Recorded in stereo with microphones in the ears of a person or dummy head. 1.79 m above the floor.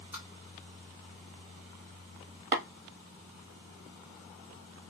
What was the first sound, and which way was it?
Tapping, 10° right (ahead or behind).